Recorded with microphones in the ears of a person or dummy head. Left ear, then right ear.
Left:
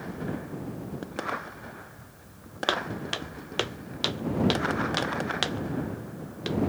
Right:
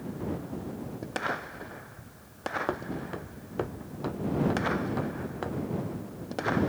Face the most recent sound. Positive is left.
turn(degrees=80)